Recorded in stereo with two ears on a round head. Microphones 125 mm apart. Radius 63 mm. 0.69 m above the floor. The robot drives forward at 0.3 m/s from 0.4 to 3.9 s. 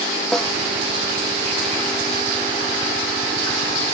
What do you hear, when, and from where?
0.3 s a snare drum: 5° left (ahead or behind)